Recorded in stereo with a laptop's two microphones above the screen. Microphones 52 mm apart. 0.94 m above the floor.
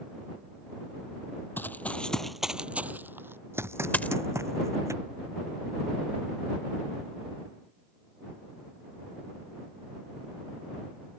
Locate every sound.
1.6 s running footsteps: 40° left (ahead or behind); by 4.9 s 70° right (ahead or behind)
3.9 s a dropped coin: 30° left (ahead or behind)